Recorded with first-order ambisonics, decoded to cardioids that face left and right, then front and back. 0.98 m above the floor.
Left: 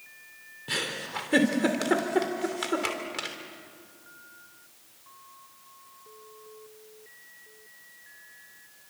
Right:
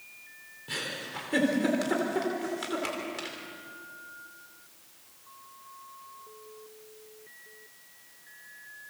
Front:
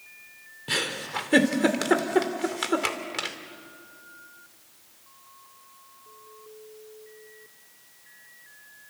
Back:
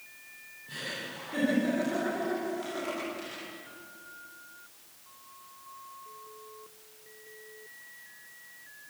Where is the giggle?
20° left, 3 m.